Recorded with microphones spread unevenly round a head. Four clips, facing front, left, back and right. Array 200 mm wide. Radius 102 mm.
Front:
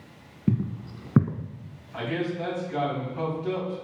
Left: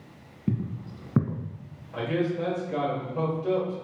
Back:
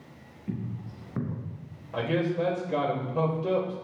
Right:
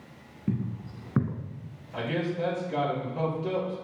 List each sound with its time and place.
0.5 s footsteps: 20° left, 1.9 m
1.9 s a man speaking: 175° left, 4 m